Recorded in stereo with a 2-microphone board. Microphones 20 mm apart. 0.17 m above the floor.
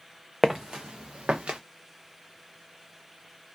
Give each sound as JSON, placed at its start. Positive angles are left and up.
{"t": 0.4, "sound": "footsteps", "side_deg": -15, "distance_m": 0.5}